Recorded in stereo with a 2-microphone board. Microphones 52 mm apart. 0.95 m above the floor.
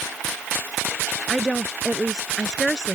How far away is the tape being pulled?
No tape being pulled in this recording.